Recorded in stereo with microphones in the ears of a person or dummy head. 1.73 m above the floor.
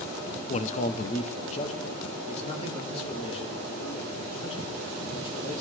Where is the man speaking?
45° left (ahead or behind), 0.6 m; by 5.6 s 35° left (ahead or behind), 6.5 m.